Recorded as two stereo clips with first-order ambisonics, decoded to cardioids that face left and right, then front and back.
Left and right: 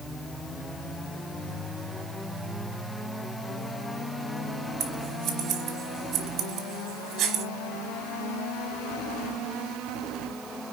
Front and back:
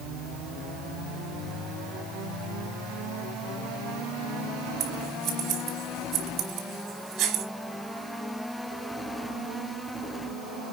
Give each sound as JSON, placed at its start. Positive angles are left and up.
{"t": 4.8, "sound": "scissors", "azimuth_deg": -145, "distance_m": 3.5}